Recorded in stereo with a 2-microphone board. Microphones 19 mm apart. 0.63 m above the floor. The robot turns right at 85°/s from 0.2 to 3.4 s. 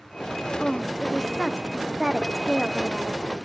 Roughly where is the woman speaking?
Behind.